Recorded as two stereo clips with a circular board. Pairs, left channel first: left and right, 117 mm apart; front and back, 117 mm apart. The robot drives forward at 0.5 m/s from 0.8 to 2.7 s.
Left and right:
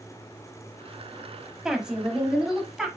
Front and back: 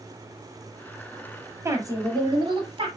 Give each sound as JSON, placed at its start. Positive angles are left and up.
{"t": 1.6, "sound": "a woman speaking", "azimuth_deg": -165, "distance_m": 1.0}